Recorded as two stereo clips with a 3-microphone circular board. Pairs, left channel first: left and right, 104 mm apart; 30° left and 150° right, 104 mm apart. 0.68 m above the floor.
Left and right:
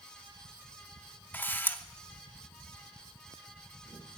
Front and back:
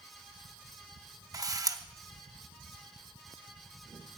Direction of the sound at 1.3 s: 160° left.